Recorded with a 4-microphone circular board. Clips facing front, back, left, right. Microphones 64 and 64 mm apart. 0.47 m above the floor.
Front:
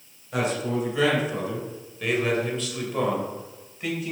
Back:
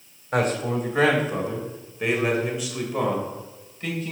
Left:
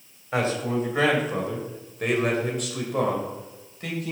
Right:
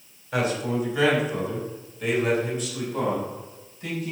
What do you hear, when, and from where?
0.3 s a man speaking: 150° left, 3 m; by 4.1 s 80° left, 3 m